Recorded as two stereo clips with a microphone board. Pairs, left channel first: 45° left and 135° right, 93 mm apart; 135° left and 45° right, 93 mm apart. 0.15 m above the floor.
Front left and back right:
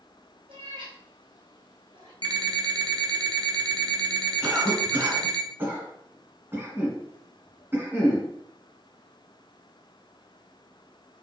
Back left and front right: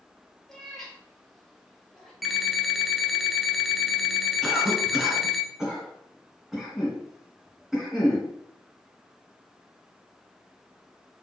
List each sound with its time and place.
0.5 s a cat meowing: 140° right, 1.6 m
2.2 s an alarm clock: 135° right, 0.6 m
4.4 s a cough: 125° right, 1.7 m